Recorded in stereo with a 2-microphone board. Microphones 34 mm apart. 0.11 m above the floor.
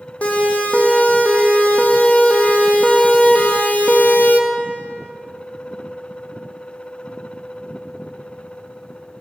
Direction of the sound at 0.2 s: 40° left (ahead or behind).